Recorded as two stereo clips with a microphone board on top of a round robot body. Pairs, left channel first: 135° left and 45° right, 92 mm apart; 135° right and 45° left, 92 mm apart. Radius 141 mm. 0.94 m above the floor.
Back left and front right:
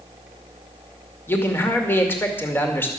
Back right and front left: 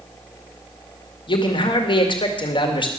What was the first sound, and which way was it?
A man speaking, 160° right.